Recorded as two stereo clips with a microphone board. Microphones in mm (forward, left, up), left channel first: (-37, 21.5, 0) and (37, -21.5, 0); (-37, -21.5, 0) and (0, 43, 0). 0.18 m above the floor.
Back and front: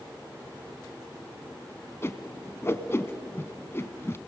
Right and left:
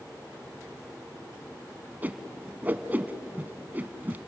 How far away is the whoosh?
About 1.1 m.